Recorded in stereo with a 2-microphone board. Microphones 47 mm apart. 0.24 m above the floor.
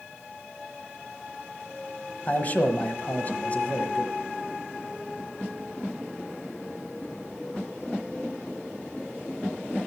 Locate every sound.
2.3 s a man speaking: 35° left (ahead or behind), 1.1 m